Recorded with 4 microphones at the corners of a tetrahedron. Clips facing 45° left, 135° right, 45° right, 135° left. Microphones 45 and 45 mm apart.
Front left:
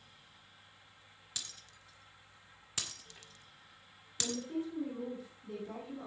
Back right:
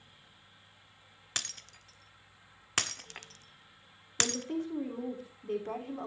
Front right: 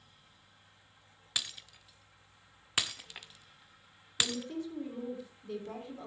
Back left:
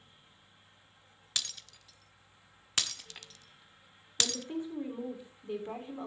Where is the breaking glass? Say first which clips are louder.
Back right 8 dB, front right 1 dB; 120° right, 0.6 m.